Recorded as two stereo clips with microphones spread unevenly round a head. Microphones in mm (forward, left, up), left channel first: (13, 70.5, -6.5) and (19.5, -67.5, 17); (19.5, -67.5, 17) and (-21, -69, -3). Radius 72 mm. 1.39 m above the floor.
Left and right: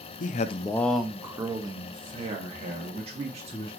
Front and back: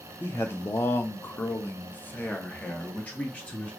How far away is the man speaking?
About 0.5 m.